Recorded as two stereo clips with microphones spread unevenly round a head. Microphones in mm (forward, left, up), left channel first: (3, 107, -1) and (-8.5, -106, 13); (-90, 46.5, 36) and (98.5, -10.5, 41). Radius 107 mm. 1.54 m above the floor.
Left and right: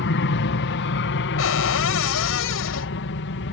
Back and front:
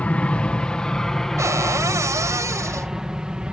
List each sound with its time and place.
0.0 s an aircraft: 80° left; by 3.5 s 70° left
1.4 s a cupboard door: 60° left